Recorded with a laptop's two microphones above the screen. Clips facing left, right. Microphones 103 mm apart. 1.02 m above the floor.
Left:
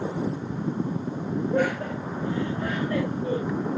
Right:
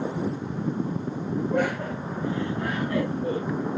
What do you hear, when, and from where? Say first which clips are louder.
1.5 s laughter: left 2 dB; 80° right, 7.5 m; by 3.4 s 85° right, 9.5 m